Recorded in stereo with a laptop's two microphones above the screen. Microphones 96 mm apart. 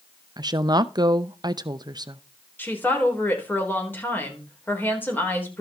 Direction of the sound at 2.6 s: 20° left (ahead or behind).